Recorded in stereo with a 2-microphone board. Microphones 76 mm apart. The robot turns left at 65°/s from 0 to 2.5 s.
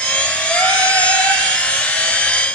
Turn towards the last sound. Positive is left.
turn(degrees=25)